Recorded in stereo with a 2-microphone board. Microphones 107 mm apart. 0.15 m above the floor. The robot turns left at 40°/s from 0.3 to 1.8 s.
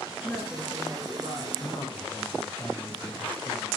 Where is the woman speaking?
15° left, 9 m; by 1.5 s 30° right, 9 m.